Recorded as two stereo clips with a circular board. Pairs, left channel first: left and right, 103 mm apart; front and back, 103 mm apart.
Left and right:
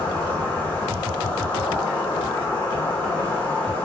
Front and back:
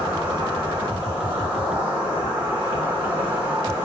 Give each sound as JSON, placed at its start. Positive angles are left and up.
{"t": 0.0, "sound": "an insect", "azimuth_deg": 140, "distance_m": 1.0}